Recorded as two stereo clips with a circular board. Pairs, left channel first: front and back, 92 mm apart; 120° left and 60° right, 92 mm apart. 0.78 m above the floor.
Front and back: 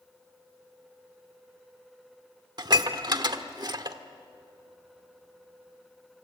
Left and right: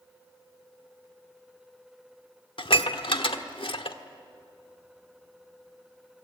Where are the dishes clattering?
140° left, 1.1 m.